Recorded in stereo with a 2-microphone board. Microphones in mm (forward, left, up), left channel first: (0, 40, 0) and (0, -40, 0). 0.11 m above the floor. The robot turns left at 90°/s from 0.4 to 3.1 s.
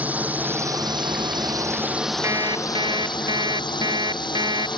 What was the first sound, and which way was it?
A drone, 20° right (ahead or behind).